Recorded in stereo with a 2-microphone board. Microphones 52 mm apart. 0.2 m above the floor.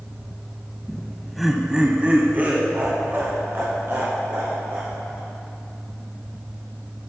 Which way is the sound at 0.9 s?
15° left (ahead or behind).